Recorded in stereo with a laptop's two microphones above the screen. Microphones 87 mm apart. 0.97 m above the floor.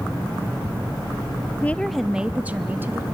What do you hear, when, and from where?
1.6 s a woman speaking: 20° left (ahead or behind), 0.5 m; by 3.0 s 25° right (ahead or behind), 1.4 m